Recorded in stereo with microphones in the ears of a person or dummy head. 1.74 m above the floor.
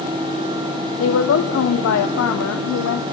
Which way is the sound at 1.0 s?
85° left.